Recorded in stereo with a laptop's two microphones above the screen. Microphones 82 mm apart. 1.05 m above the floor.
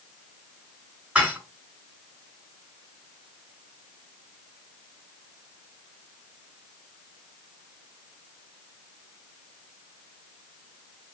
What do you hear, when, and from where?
1.1 s dishes clattering: 15° right (ahead or behind), 3 m